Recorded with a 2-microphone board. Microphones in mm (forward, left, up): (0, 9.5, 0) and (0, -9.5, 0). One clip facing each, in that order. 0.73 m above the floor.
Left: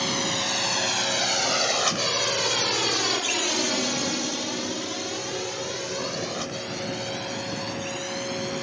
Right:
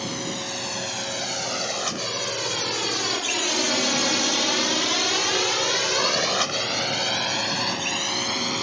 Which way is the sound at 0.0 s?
25° left (ahead or behind).